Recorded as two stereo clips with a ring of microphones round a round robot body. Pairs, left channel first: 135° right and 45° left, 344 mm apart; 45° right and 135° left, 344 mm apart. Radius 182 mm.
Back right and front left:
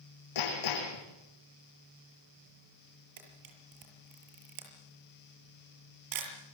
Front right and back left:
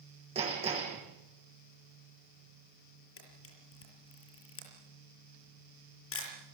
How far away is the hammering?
About 9.5 m.